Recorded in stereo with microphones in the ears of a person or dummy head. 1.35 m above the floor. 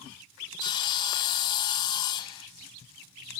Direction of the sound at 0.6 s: 25° left (ahead or behind).